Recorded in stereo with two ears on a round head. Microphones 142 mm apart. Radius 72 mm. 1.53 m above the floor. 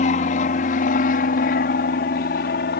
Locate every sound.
0.0 s an aircraft: 45° left (ahead or behind); by 2.8 s 65° left (ahead or behind)